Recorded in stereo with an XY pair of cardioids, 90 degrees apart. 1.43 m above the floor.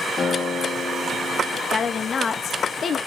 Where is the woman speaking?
50° left, 0.7 m.